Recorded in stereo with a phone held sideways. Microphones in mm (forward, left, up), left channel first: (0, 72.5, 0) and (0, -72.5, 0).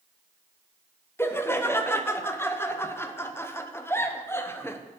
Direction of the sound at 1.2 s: 15° left (ahead or behind).